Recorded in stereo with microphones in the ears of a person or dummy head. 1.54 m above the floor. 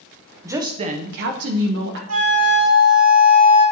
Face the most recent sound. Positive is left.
turn(degrees=-85)